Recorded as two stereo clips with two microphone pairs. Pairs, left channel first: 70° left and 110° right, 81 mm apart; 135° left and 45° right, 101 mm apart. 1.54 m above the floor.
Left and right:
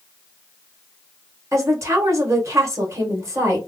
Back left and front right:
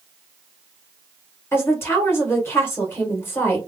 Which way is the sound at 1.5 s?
160° right.